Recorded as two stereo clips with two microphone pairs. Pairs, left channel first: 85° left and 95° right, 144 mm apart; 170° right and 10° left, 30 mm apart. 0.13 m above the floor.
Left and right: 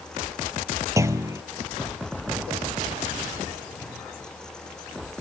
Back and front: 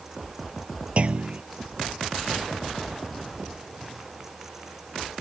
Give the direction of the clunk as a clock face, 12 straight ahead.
1 o'clock.